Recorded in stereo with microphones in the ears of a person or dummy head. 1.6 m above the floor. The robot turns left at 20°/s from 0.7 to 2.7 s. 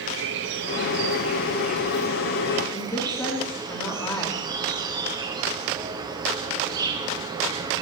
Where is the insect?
115° right, 1.5 m; by 7.8 s 155° right, 1.5 m.